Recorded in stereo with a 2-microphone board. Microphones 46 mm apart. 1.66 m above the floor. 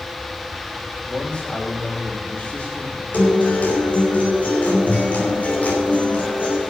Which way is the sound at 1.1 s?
30° left (ahead or behind).